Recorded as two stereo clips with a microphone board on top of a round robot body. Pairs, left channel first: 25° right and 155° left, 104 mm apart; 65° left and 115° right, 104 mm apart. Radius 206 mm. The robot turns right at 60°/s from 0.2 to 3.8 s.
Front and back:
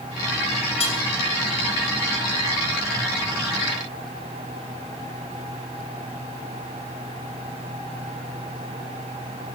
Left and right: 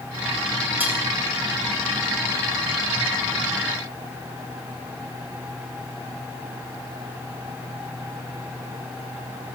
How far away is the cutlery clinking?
About 4 m.